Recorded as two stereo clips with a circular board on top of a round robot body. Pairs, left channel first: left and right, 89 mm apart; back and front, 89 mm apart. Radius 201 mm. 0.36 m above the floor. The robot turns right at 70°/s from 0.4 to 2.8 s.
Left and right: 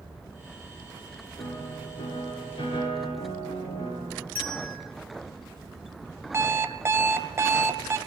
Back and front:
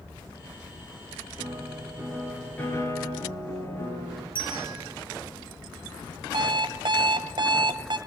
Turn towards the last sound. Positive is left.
turn(degrees=-30)